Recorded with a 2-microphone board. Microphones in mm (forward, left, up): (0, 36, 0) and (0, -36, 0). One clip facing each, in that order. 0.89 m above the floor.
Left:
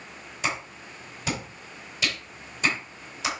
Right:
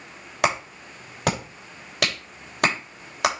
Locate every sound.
0.4 s a clap: 75° right (ahead or behind), 3 m